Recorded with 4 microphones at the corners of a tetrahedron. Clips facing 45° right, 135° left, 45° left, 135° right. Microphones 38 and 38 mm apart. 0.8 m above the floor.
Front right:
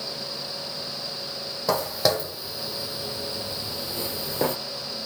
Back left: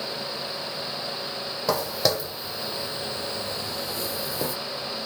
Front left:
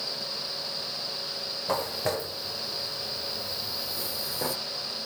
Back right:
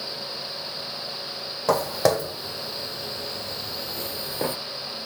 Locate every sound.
1.7 s footsteps: 135° right, 2.5 m; by 4.6 s 80° right, 1.3 m